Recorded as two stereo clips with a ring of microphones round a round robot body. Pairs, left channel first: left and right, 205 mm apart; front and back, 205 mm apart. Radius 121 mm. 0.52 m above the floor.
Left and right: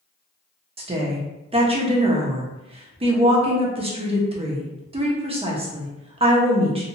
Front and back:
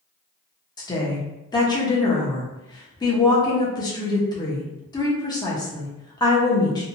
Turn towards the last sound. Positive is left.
turn(degrees=-55)